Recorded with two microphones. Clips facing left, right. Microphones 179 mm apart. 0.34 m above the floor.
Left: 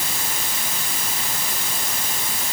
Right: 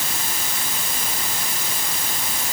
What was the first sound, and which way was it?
Only background noise.